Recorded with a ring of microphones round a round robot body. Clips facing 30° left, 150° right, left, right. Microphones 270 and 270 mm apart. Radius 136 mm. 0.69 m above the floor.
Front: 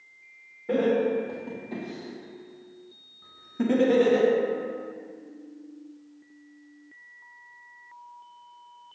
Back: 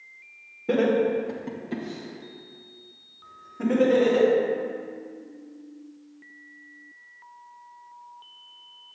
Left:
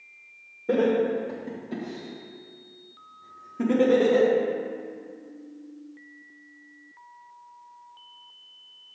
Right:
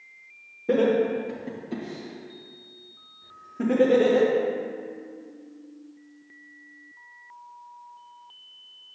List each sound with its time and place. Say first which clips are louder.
0.7 s laughter: back 2 dB, right 1 dB; 160° right, 1.5 m; by 4.3 s 15° left, 2 m